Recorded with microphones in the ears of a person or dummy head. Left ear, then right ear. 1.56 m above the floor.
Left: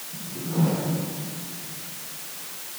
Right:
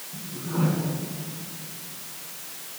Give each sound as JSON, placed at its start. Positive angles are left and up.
{"t": 0.1, "sound": "a whoosh", "side_deg": -45, "distance_m": 3.5}